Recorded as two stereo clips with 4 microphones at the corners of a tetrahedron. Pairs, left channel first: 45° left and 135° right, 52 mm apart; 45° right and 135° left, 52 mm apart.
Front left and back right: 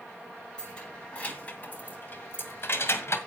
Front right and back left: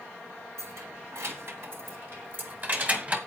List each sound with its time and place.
0.6 s keys jangling: 115° left, 2.5 m; by 3.2 s 75° left, 1.8 m